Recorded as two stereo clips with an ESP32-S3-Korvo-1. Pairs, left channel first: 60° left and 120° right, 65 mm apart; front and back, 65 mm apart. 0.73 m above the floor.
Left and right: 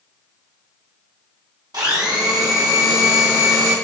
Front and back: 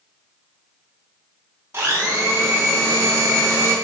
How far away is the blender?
About 0.7 m.